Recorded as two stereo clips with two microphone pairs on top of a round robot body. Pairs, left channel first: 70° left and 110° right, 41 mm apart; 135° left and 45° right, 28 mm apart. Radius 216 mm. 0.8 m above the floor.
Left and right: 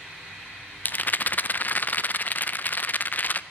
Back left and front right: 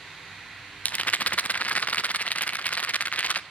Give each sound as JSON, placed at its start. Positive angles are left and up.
{"t": 0.8, "sound": "a rattle", "azimuth_deg": 115, "distance_m": 0.6}